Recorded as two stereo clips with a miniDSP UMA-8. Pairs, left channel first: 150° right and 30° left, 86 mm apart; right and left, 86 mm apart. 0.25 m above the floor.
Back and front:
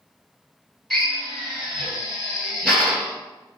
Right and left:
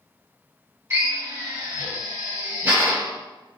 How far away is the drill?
About 1.9 m.